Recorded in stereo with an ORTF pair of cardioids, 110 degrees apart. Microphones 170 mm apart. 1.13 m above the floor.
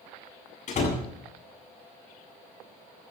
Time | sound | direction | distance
0.7 | a door slam | 45° left | 8 m